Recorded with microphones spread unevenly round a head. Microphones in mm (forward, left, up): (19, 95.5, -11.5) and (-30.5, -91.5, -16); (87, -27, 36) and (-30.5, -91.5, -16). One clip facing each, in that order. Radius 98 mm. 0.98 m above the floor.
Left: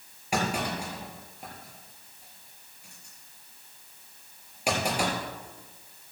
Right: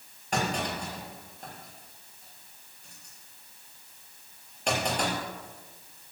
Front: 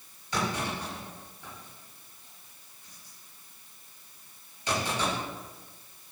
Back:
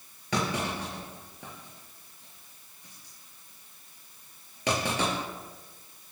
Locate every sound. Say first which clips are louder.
0.3 s a clunk: left 1 dB, back 1 dB; 155° left, 4 m